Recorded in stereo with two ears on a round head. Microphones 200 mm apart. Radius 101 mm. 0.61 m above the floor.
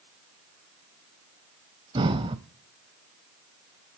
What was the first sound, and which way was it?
Breathing, 25° right (ahead or behind).